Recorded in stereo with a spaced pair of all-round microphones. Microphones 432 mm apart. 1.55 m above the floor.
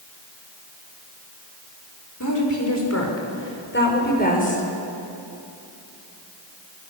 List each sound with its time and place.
2.2 s a woman speaking: 45° left (ahead or behind), 5.5 m; by 4.6 s 15° left (ahead or behind), 6 m